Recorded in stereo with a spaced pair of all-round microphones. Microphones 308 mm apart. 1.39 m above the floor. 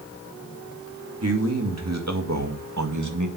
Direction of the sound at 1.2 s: 55° right (ahead or behind).